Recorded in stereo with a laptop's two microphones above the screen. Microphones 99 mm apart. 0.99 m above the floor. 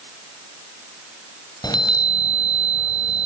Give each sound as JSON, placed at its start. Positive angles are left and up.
{"t": 1.6, "sound": "a chime", "side_deg": 45, "distance_m": 2.5}